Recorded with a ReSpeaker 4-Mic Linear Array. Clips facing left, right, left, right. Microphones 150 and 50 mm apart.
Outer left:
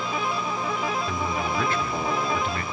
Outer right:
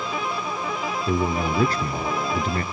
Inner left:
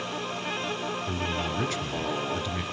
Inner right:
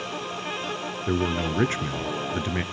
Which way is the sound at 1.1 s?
40° right (ahead or behind).